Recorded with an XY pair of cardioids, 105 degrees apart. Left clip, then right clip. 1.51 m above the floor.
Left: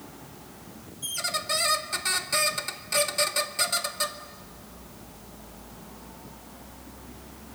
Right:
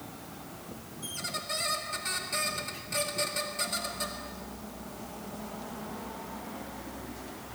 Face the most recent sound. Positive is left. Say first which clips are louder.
# left 6 dB
turn(degrees=50)